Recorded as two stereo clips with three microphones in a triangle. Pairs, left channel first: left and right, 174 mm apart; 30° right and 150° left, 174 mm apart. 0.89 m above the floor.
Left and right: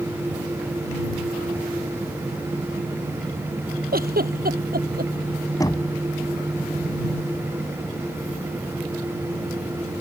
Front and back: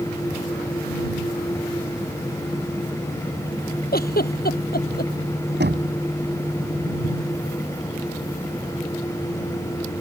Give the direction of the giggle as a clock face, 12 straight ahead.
2 o'clock.